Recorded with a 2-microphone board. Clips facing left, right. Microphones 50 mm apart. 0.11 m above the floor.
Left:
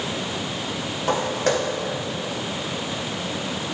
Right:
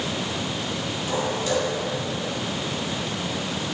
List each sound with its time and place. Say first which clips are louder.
1.1 s footsteps: left 3 dB; 50° left (ahead or behind), 2.5 m